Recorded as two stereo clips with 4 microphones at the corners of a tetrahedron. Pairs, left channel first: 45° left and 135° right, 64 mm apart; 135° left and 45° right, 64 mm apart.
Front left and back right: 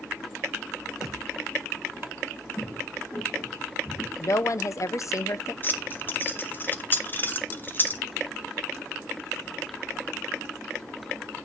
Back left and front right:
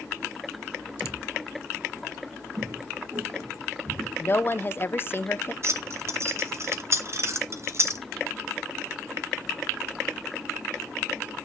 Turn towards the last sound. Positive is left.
turn(degrees=-10)